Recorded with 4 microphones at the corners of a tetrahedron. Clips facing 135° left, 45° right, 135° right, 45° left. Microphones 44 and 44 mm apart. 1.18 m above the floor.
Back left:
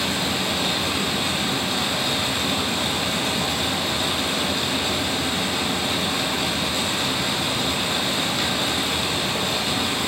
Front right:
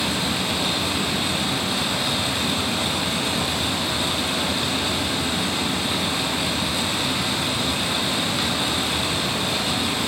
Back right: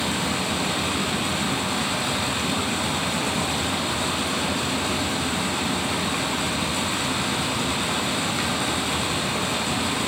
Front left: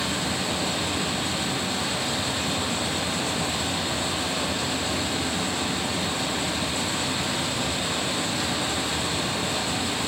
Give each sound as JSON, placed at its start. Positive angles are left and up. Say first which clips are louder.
{"t": 0.0, "sound": "running water", "louder": "even, back right 2 dB", "azimuth_deg": -130, "distance_m": 4.5}